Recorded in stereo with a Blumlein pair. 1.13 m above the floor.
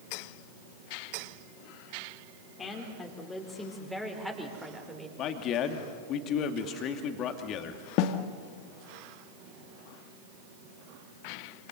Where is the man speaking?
35° left, 2.5 m.